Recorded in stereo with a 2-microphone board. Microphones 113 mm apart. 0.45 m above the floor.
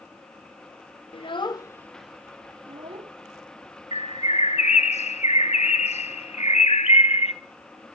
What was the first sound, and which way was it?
A child speaking, 50° left (ahead or behind).